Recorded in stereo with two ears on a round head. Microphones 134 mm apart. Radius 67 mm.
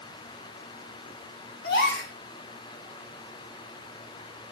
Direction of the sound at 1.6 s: 70° left (ahead or behind).